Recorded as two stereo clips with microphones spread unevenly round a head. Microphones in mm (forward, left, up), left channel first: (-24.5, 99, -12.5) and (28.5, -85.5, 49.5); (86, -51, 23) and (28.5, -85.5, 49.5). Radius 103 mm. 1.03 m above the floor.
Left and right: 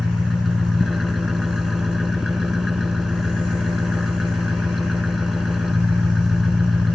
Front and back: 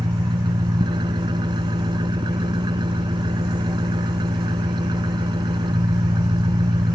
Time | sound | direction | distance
0.0 | an engine running | 160° right | ?